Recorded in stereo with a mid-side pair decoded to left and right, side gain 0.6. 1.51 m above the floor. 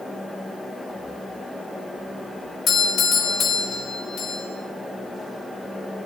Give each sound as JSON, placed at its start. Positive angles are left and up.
{"t": 0.0, "sound": "a fan", "azimuth_deg": 5, "distance_m": 1.8}
{"t": 2.7, "sound": "a doorbell", "azimuth_deg": 45, "distance_m": 2.5}